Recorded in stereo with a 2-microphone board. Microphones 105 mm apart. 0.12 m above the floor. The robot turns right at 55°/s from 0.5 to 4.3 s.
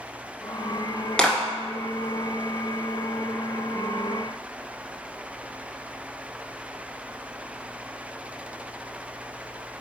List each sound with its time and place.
1.2 s a clap: 5° left (ahead or behind), 1.1 m; by 1.4 s 10° left (ahead or behind), 1.1 m